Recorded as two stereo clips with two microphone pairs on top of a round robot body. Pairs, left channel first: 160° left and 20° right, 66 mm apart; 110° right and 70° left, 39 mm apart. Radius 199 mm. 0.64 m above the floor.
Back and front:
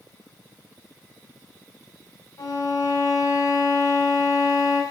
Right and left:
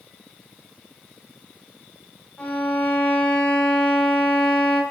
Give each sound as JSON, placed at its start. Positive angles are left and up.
{"t": 2.4, "sound": "a violin", "azimuth_deg": -165, "distance_m": 6.0}